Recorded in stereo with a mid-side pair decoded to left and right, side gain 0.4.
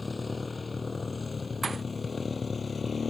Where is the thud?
35° right.